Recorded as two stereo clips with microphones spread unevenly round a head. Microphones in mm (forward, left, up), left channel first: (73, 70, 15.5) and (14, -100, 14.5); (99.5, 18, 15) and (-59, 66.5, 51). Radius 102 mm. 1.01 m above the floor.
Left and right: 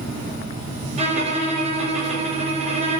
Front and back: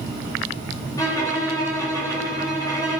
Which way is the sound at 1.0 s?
65° right.